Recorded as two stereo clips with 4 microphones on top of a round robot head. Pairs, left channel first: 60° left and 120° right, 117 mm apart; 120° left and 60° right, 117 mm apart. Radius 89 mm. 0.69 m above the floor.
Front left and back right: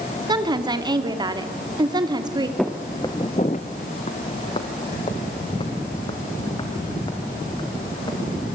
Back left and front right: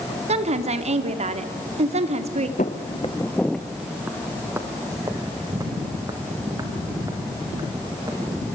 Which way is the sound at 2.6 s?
145° left.